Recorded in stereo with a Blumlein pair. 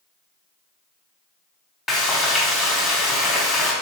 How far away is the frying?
About 1.1 m.